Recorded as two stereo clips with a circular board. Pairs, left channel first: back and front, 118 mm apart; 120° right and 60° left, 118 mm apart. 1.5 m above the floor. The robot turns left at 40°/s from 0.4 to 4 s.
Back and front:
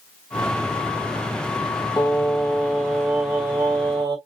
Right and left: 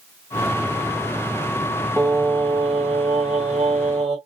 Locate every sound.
2.0 s singing: 130° left, 3 m; by 4.2 s 50° left, 3 m